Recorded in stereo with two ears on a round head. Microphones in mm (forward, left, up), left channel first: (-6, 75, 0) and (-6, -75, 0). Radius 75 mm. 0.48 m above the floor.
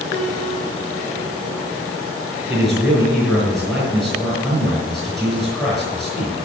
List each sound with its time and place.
0.1 s a piano: 20° left (ahead or behind), 6.5 m
2.5 s a man speaking: 5° left (ahead or behind), 6 m